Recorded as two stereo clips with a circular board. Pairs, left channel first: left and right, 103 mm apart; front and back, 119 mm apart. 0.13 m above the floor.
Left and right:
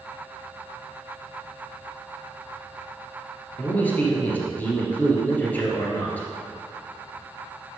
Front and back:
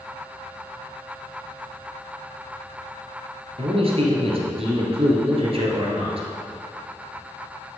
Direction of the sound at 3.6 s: 160° left.